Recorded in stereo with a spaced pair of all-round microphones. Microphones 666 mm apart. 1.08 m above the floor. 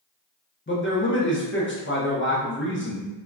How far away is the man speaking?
About 0.7 m.